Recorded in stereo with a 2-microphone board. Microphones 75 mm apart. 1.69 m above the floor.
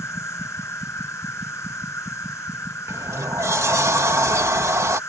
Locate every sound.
0.0 s an insect: 35° left (ahead or behind)
2.9 s a sliding door: 40° right (ahead or behind)